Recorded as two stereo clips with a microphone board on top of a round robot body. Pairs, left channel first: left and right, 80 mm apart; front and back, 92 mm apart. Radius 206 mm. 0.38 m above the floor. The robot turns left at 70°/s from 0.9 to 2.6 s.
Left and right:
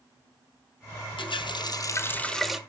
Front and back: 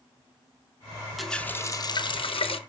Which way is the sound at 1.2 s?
90° left.